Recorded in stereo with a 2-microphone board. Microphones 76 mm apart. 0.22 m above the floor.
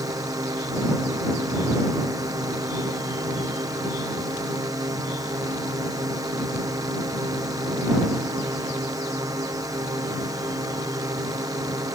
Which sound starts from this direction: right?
A drone, at 0.0 s.